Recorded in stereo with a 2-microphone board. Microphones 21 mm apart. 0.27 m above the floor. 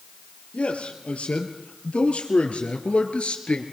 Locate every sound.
0.5 s a man speaking: 75° left (ahead or behind), 7 m; by 3.6 s 65° left (ahead or behind), 5 m